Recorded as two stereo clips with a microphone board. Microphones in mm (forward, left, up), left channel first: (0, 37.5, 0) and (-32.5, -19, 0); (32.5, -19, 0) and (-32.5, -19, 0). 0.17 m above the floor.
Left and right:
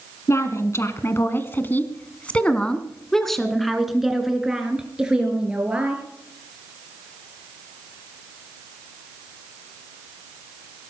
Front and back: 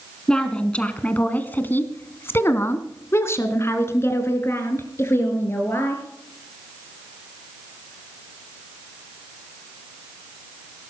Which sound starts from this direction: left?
A woman speaking, at 0.3 s.